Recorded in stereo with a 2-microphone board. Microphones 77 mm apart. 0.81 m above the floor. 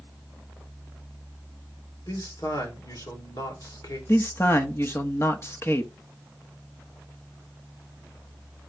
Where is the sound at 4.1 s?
35° left (ahead or behind), 1.0 m.